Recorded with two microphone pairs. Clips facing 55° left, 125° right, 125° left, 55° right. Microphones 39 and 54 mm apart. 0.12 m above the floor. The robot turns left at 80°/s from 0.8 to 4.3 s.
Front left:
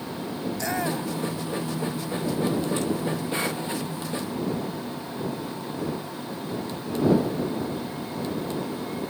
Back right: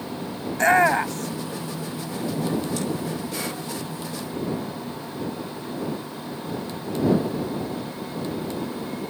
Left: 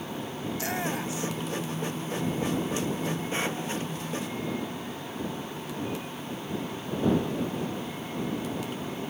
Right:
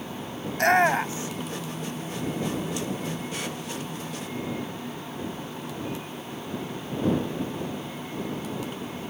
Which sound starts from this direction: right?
A shout, at 0.5 s.